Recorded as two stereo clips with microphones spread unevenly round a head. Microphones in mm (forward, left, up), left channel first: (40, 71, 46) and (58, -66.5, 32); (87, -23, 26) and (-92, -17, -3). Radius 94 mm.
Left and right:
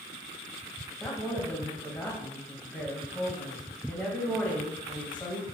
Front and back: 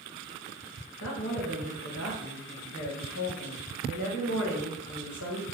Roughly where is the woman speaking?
Ahead.